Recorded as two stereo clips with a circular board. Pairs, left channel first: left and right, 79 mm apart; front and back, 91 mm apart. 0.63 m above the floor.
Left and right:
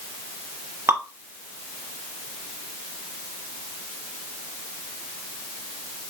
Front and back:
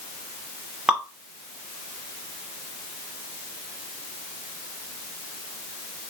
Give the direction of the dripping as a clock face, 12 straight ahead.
4 o'clock.